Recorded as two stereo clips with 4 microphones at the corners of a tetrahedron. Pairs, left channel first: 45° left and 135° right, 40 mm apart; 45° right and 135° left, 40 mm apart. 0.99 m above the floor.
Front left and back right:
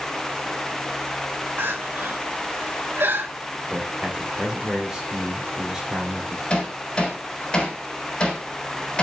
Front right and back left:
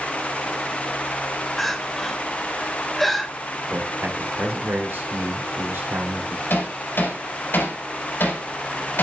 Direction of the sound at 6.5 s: 20° right.